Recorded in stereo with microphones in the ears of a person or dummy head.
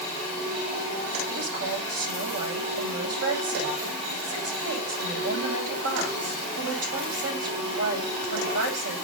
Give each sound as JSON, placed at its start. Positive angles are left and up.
{"t": 1.3, "sound": "a woman speaking", "side_deg": -85, "distance_m": 10.0}